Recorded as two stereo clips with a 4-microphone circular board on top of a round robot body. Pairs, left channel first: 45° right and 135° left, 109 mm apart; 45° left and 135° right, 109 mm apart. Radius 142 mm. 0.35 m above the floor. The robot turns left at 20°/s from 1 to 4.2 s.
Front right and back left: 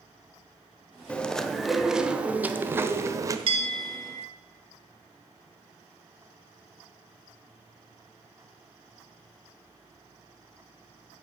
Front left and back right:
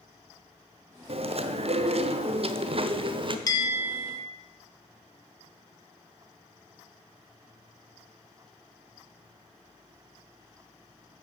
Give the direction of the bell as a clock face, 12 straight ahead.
9 o'clock.